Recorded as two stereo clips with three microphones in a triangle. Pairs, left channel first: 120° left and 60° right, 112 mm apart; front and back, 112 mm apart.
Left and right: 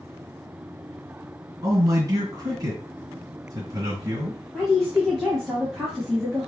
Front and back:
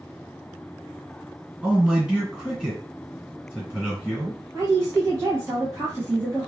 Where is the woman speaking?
160° right, 1.0 m.